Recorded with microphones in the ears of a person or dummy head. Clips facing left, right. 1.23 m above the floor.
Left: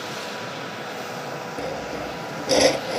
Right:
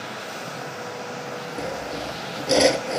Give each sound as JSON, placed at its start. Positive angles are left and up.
{"t": 1.6, "sound": "sawing", "side_deg": -5}